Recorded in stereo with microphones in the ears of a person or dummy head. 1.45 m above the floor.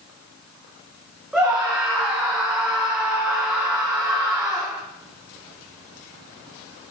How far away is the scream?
About 1.7 m.